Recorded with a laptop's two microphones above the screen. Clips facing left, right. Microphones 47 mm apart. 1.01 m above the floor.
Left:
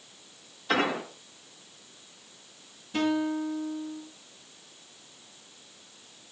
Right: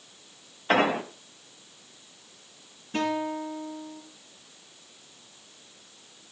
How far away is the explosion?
About 1.3 m.